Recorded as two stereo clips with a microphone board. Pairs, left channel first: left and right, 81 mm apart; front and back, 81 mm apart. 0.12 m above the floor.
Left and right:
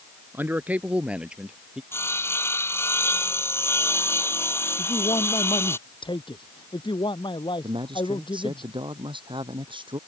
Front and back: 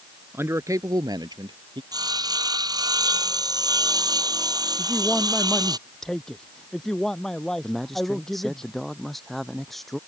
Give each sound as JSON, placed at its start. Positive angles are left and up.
{"t": 0.3, "sound": "a man speaking", "azimuth_deg": -140}
{"t": 1.9, "sound": "sawing", "azimuth_deg": 145}
{"t": 4.8, "sound": "a man speaking", "azimuth_deg": 85}
{"t": 7.6, "sound": "a man speaking", "azimuth_deg": -90}